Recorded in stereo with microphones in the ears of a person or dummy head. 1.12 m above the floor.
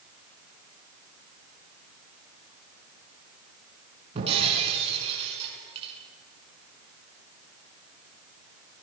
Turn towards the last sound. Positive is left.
turn(degrees=-30)  # may be behind; listen again after turning